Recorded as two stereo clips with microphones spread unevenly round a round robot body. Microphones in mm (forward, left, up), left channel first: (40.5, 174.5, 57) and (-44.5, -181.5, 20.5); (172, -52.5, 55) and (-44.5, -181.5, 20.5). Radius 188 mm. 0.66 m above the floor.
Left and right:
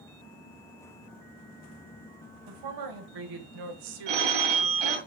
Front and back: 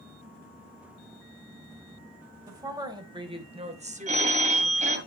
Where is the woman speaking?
75° right, 3 m; by 5.1 s 115° right, 1.6 m.